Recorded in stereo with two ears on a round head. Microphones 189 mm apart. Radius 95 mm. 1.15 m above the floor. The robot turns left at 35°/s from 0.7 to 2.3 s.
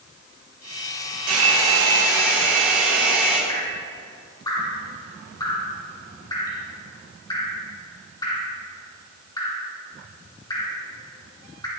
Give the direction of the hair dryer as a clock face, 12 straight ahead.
5 o'clock.